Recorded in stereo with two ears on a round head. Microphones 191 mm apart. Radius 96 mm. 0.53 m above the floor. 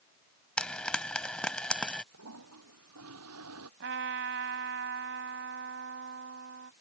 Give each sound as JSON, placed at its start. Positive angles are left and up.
{"t": 0.6, "sound": "frying", "side_deg": 5}
{"t": 2.1, "sound": "a toilet flushing", "side_deg": -75}
{"t": 3.8, "sound": "a trumpet", "side_deg": -60}